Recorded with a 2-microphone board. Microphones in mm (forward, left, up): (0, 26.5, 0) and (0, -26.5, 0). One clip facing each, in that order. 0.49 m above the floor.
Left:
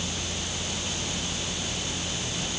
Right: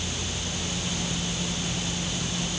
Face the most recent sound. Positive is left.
No sound to turn to.